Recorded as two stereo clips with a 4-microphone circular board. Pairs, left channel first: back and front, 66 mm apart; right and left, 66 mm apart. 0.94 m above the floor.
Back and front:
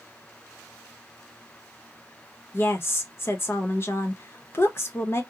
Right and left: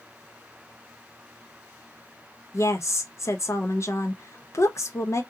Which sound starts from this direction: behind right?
A woman speaking, at 2.5 s.